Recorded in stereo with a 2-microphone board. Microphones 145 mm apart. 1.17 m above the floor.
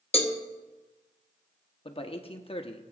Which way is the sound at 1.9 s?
40° left (ahead or behind).